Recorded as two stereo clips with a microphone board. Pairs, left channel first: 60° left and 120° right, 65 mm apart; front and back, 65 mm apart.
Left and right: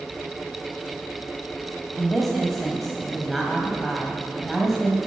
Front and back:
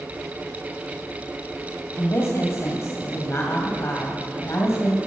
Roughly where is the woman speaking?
Ahead right.